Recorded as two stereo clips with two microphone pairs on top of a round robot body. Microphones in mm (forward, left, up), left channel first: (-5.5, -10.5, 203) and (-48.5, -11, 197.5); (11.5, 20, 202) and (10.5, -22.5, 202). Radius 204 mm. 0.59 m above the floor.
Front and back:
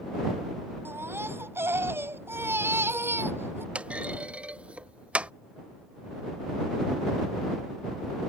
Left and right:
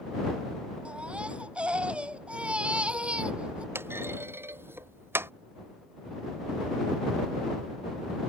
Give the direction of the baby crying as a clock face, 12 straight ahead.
5 o'clock.